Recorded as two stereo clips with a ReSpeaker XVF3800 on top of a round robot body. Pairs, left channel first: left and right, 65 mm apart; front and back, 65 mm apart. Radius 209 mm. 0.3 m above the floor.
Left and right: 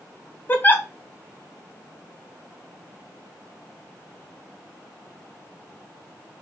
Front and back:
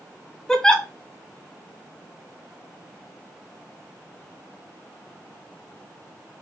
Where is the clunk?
I don't hear a clunk.